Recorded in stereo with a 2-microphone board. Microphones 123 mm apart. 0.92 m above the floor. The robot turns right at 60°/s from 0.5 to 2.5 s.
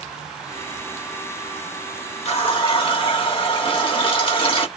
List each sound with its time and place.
2.2 s a running tap: 60° left (ahead or behind), 1.1 m; by 4.7 s 45° left (ahead or behind), 1.1 m